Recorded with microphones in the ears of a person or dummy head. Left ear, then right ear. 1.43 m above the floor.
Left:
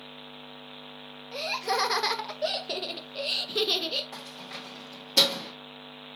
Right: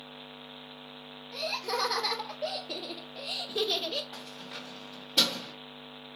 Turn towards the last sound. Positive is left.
turn(degrees=80)